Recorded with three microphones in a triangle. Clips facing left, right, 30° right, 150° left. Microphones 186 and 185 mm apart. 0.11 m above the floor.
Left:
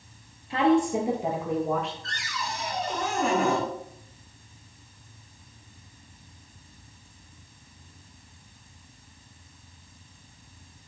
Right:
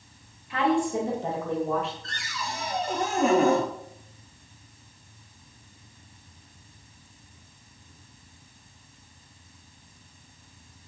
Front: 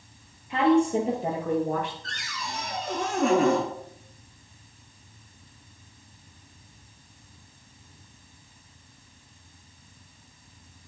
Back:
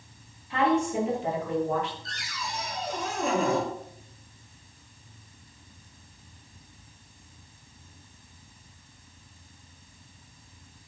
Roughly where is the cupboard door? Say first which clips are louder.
Left 1 dB, front 1 dB; ahead right.